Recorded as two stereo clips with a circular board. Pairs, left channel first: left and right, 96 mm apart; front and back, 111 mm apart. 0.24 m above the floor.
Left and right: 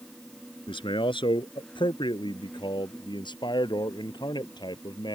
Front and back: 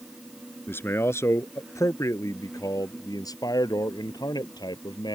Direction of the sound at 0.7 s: 70° left.